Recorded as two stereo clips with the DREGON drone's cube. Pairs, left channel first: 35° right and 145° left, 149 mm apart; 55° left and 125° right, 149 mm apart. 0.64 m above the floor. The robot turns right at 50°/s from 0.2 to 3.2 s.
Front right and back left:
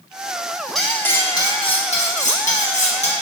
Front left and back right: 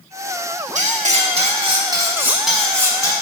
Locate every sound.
0.8 s cutlery clinking: 125° right, 0.6 m; by 3.1 s 5° right, 0.6 m